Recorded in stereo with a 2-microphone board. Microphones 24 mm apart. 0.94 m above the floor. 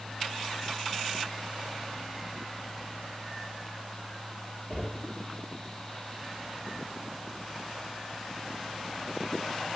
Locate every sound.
4.7 s knocking: 35° left (ahead or behind), 3.5 m